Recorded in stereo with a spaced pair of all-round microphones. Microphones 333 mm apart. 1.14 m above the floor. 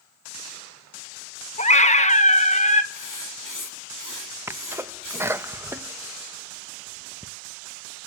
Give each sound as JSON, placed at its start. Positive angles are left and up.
{"t": 1.6, "sound": "a scream", "side_deg": 20, "distance_m": 1.2}
{"t": 2.9, "sound": "writing", "side_deg": 75, "distance_m": 1.9}
{"t": 4.5, "sound": "a sneeze", "side_deg": -10, "distance_m": 0.7}